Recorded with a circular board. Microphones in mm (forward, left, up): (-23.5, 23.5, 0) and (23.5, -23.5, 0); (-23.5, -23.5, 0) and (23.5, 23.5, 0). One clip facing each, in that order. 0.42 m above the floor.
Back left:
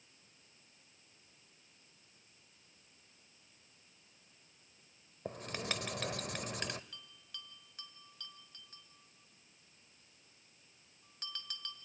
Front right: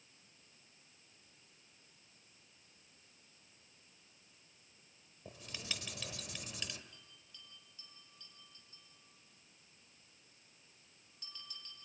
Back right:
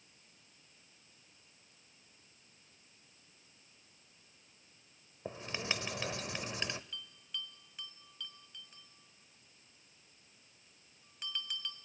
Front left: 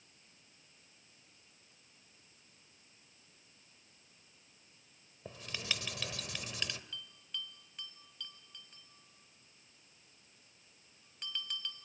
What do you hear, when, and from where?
5.2 s writing: 165° left, 1.0 m
6.9 s a bell: 135° left, 2.5 m